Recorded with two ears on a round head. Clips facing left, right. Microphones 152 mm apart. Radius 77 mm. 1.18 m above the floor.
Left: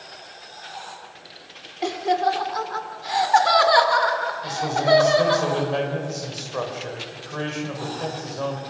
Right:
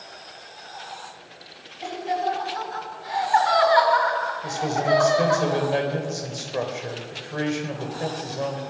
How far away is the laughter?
About 3 m.